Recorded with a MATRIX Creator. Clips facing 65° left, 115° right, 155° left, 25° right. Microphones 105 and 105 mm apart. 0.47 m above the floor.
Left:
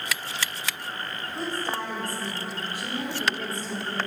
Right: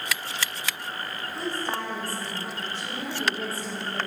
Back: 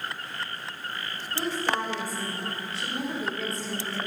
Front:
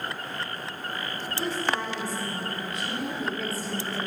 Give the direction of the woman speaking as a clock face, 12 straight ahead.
8 o'clock.